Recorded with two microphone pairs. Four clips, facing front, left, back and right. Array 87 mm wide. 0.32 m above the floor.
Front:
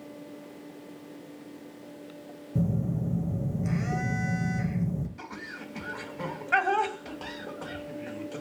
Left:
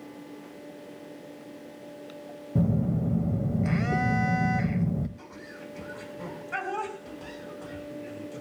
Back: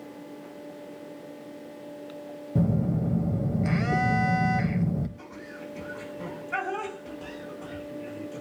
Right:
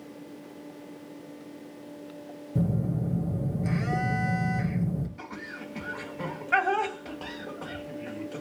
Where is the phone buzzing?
165° left, 1.4 m.